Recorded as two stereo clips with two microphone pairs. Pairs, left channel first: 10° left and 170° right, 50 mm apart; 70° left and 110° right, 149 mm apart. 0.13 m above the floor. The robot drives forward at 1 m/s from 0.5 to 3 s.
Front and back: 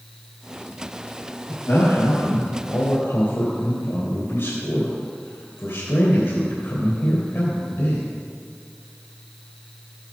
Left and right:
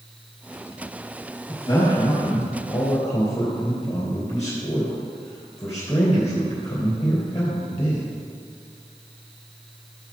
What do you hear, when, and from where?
1.5 s a man speaking: 5° left, 4.5 m